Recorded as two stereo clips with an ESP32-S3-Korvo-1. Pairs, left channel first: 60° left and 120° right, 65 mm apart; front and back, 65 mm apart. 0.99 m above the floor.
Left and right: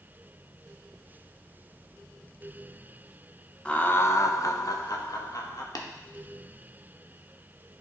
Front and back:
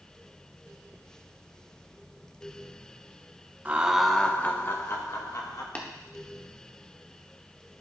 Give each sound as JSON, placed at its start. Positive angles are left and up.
{"t": 3.6, "sound": "laughter", "azimuth_deg": 130, "distance_m": 0.6}
{"t": 5.8, "sound": "tapping", "azimuth_deg": 65, "distance_m": 0.9}